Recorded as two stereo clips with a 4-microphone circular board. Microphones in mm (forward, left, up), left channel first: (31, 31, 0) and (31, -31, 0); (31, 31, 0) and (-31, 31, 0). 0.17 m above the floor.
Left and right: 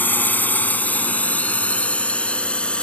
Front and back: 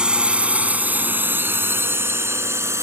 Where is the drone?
115° left; by 2.8 s 160° left.